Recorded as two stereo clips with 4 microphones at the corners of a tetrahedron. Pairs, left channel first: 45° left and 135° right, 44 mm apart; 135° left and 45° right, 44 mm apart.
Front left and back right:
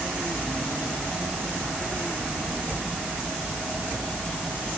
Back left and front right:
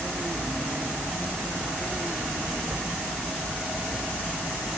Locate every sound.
Only background noise.